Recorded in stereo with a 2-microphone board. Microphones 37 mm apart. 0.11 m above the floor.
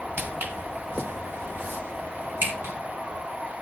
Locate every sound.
0.2 s footsteps: 65° right (ahead or behind), 2.5 m; by 2.7 s 85° right, 5 m